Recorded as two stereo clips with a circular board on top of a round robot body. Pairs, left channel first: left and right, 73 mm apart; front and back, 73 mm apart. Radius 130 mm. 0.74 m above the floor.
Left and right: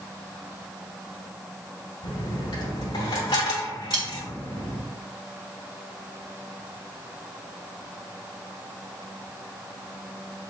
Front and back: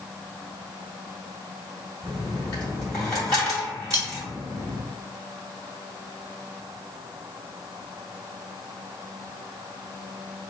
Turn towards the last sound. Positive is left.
turn(degrees=-125)